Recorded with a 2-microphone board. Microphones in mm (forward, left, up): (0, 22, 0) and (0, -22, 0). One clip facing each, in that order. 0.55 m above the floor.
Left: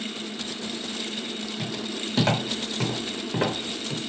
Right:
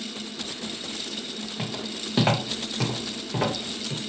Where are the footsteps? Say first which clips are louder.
Even; 35° right (ahead or behind), 1.1 m; by 4.0 s 20° left (ahead or behind), 1.9 m.